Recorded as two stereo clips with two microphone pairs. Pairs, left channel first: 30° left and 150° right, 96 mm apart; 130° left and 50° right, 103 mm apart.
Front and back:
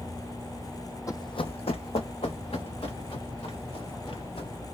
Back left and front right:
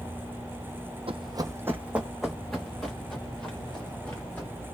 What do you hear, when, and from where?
1.1 s running footsteps: 25° right, 0.5 m; by 4.5 s 55° left, 3 m